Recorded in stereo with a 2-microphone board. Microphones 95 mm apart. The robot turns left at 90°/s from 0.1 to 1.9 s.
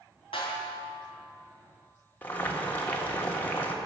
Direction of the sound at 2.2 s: 20° left (ahead or behind).